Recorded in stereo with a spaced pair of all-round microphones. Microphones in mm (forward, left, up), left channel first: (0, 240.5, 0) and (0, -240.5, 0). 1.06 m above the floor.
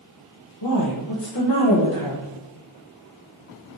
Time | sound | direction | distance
0.6 | a woman speaking | 50° left (ahead or behind) | 0.9 m